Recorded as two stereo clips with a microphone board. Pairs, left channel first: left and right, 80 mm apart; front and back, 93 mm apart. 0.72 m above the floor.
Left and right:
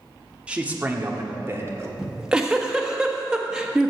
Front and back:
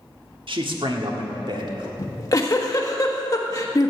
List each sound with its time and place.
0.5 s a man speaking: 165° right, 1.4 m; by 1.9 s 145° right, 2.5 m
2.0 s a giggle: 15° right, 1.3 m